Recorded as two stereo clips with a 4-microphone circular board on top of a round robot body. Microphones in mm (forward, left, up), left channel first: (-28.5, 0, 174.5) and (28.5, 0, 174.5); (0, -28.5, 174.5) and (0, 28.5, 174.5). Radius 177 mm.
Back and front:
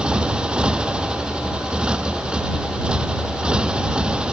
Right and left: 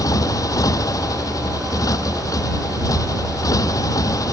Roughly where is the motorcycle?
Right.